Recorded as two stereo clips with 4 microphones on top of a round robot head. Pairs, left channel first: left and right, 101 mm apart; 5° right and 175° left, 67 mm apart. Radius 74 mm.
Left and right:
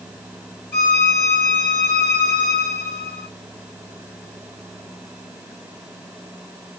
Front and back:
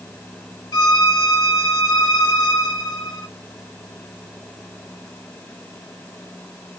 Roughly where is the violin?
Ahead.